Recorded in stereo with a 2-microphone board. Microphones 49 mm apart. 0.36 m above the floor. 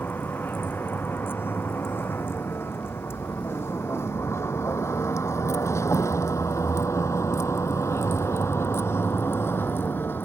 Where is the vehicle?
45° left (ahead or behind).